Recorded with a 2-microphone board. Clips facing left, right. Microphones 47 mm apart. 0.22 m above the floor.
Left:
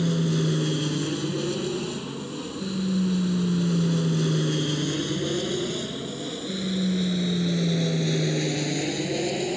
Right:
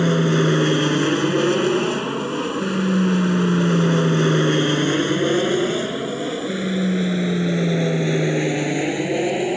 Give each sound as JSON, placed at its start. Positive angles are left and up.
{"t": 0.0, "sound": "an aircraft", "side_deg": -50}